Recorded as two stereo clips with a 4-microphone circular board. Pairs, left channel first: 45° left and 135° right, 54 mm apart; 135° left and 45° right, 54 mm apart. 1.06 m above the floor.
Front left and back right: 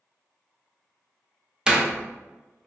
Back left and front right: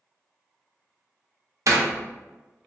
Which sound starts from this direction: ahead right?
A door slam, at 1.7 s.